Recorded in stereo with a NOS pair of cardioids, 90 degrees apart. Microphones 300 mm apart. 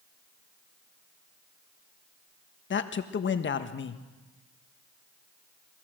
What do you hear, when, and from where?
2.7 s a man speaking: 40° left, 1.4 m